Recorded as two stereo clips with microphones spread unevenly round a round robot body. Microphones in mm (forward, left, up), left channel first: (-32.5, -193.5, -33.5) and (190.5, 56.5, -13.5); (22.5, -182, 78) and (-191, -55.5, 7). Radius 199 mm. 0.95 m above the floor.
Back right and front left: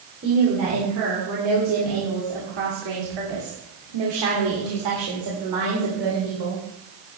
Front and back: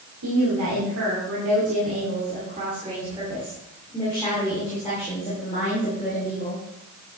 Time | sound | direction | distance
0.2 | a woman speaking | 115° left | 2.5 m